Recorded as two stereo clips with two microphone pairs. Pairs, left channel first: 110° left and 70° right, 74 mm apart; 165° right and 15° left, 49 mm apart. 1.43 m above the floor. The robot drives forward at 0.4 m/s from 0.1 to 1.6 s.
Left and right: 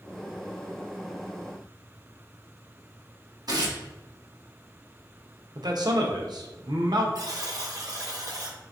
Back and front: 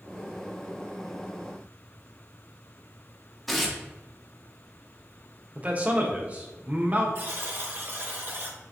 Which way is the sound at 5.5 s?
50° right.